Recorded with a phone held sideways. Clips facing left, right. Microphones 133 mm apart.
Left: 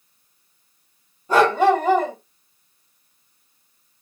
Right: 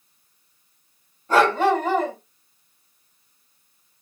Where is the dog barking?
15° left (ahead or behind), 1.4 m.